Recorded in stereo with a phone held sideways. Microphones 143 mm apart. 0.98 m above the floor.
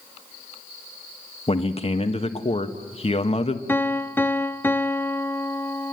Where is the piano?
15° left (ahead or behind), 0.6 m.